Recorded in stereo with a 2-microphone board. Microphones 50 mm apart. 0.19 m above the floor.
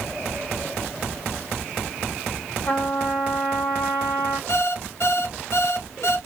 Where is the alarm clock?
60° left (ahead or behind), 0.8 m.